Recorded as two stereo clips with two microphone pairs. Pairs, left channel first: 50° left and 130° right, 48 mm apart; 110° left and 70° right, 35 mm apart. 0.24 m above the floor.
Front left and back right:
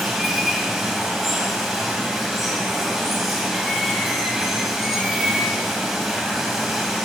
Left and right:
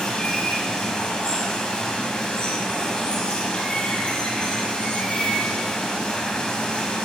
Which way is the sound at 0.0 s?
145° left.